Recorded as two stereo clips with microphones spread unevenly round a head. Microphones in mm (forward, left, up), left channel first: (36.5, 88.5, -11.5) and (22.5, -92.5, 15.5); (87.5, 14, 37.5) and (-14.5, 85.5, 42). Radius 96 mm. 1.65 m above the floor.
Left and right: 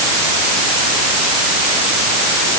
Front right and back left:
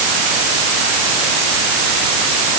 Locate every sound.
Only background noise.